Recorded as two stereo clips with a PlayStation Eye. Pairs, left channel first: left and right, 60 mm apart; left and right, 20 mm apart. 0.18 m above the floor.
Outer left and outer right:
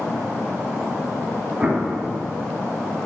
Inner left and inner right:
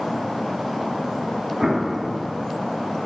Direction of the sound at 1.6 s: 20° right (ahead or behind).